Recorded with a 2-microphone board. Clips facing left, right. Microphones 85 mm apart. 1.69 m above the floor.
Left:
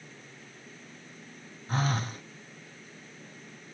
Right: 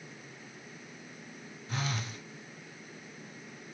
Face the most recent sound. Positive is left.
turn(degrees=40)  # may be behind; listen again after turning